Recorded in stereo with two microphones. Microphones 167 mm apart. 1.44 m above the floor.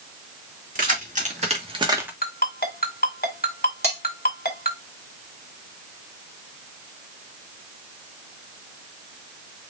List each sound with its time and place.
0.8 s keys jangling: 55° right (ahead or behind), 2.5 m; by 2.1 s 5° right (ahead or behind), 1.0 m
2.2 s a ringtone: 65° left (ahead or behind), 1.9 m
3.8 s cutlery clinking: 40° right (ahead or behind), 2.5 m